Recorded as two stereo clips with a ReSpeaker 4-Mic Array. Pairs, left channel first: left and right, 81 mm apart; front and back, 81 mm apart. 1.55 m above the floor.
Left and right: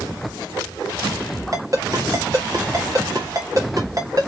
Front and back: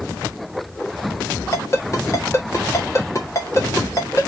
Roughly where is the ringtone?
Ahead right.